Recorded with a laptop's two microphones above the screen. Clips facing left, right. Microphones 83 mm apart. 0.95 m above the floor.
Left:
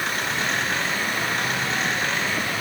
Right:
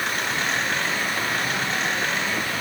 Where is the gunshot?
I don't hear a gunshot.